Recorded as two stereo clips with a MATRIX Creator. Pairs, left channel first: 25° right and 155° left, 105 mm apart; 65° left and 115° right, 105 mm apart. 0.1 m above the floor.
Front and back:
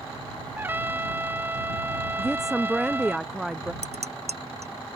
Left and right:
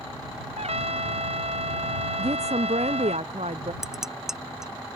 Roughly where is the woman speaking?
Behind right.